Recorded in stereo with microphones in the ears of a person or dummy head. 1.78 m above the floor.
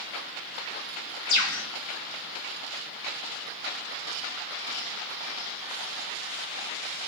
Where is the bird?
80° left, 1.5 m.